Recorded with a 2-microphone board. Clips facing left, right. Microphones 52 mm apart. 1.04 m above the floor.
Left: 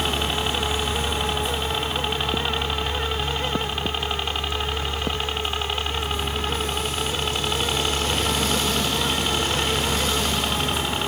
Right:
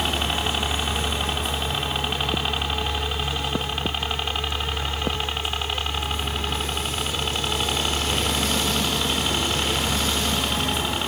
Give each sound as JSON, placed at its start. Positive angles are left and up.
{"t": 0.0, "sound": "a helicopter", "side_deg": -5}